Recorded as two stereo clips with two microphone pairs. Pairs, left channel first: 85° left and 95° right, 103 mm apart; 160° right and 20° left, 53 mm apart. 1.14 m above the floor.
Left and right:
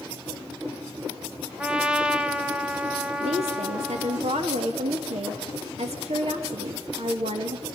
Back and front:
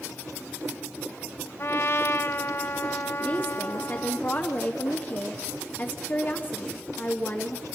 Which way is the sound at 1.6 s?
170° right.